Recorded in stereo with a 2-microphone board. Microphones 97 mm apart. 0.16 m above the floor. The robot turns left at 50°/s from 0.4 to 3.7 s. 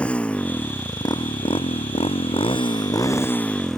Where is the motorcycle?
170° left; by 3.8 s 5° left.